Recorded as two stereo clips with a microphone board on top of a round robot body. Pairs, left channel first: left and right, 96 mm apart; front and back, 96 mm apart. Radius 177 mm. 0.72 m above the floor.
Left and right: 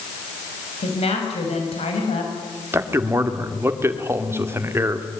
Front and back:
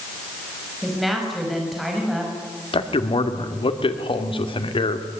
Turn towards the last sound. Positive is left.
turn(degrees=-25)